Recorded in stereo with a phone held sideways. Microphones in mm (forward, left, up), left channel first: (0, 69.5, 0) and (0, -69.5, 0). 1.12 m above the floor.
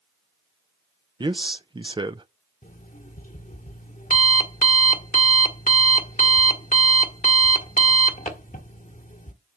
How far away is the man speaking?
About 0.6 m.